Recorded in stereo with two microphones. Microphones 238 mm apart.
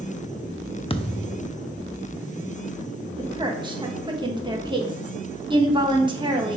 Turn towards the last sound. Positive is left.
turn(degrees=-20)  # may be behind; listen again after turning